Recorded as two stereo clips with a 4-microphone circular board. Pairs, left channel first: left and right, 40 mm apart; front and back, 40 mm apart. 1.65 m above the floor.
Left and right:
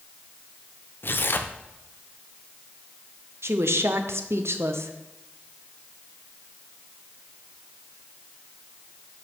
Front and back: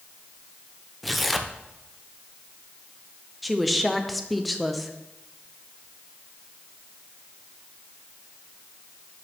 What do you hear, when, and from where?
1.0 s tearing paper: 90° left, 0.6 m
3.4 s a woman speaking: 90° right, 0.8 m